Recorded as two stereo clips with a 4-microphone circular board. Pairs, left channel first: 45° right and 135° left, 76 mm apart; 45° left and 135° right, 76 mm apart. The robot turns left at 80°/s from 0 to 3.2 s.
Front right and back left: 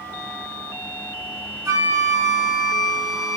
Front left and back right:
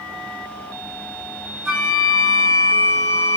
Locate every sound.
1.6 s a flute: 155° left, 1.0 m; by 3.4 s 30° left, 1.0 m